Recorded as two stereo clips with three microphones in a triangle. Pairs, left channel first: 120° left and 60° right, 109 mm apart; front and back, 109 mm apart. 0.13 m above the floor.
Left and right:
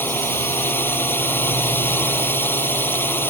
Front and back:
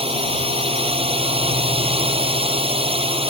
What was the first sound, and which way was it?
A drone, 170° right.